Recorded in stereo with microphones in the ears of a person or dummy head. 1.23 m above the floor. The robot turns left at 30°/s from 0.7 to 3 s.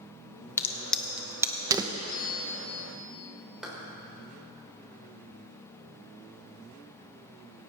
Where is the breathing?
No breathing in this recording.